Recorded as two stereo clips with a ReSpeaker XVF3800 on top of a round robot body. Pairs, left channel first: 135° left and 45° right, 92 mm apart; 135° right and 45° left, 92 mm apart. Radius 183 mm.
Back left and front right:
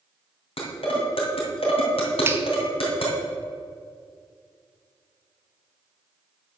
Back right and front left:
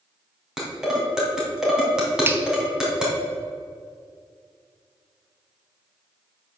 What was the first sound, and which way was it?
Dishes clattering, 130° left.